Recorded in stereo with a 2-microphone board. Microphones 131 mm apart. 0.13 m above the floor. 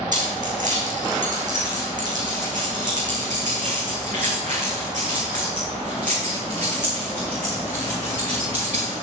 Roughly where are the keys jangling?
Right.